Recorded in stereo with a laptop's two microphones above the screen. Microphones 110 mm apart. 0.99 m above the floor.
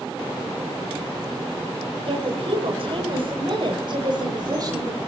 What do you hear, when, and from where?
2.0 s a woman speaking: 60° right (ahead or behind), 4 m; by 5.0 s 35° right (ahead or behind), 3.5 m